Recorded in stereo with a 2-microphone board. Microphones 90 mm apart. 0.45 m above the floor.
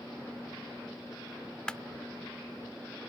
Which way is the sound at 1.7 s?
10° left (ahead or behind).